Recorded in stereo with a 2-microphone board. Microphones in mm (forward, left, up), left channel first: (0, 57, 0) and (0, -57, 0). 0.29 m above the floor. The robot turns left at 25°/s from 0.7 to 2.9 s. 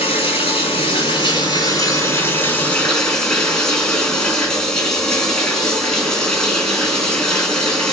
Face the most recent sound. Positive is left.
turn(degrees=5)